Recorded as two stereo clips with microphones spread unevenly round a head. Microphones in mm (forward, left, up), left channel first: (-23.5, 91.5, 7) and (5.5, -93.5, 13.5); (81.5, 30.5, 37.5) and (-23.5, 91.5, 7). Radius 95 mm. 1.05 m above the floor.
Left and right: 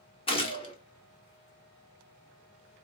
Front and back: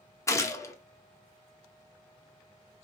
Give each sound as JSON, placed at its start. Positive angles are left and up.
{"t": 0.3, "sound": "a gunshot", "azimuth_deg": 45, "distance_m": 1.0}